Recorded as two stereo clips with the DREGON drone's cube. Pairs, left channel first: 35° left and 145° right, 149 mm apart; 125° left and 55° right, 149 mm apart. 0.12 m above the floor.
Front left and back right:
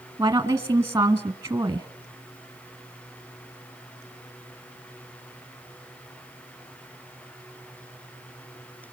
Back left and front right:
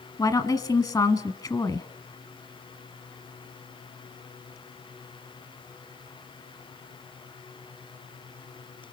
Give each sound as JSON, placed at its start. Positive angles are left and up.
{"t": 0.2, "sound": "a woman speaking", "azimuth_deg": 165, "distance_m": 1.2}